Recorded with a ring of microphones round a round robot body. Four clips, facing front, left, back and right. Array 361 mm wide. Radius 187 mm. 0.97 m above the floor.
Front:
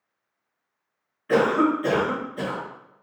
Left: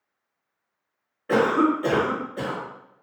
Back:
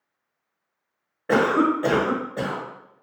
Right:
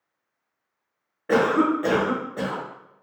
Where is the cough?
160° right, 1.1 m.